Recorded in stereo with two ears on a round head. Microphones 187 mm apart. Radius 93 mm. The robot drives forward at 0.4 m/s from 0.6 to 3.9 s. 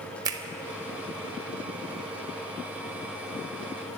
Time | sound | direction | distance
0.2 | a finger snap | 20° right (ahead or behind) | 0.7 m